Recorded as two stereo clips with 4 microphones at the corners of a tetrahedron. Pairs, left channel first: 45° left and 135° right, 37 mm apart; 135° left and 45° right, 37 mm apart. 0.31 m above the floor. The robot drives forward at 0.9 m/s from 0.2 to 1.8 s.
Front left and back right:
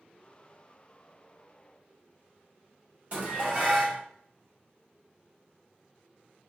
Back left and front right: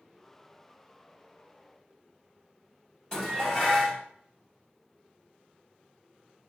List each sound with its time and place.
3.1 s dishes clattering: 165° right, 1.3 m